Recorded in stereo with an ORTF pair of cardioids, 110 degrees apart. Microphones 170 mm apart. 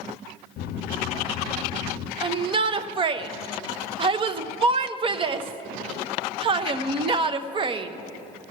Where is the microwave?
65° left, 0.5 m.